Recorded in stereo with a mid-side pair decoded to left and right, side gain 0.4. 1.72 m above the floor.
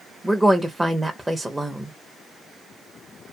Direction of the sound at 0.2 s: 15° right.